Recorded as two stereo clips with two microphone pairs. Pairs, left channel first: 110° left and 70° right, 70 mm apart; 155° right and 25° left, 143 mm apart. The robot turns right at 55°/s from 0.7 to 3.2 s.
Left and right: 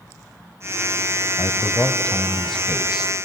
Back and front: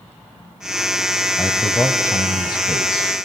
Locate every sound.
1.4 s a man speaking: 125° left, 1.3 m; by 3.1 s 140° right, 1.3 m